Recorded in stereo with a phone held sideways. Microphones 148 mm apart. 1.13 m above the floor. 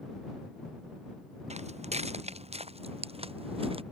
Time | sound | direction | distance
1.5 | footsteps | 50° right (ahead or behind) | ?